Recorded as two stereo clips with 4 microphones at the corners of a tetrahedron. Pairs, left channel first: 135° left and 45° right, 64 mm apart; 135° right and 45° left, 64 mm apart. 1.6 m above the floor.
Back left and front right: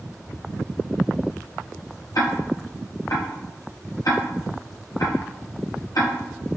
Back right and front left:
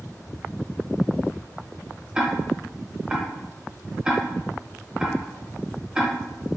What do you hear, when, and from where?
2.1 s ticking: 115° left, 0.8 m